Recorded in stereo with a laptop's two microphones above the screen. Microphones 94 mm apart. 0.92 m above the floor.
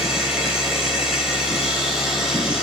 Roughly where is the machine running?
Centre.